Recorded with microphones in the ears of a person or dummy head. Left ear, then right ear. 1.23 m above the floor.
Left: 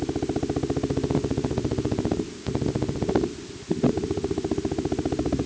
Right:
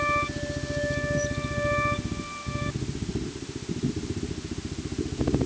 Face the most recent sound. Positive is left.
No sound to turn to.